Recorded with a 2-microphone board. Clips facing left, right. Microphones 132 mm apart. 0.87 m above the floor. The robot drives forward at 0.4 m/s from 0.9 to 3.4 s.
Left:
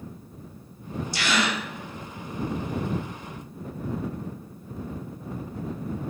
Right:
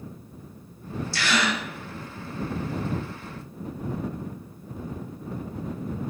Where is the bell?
No bell in this recording.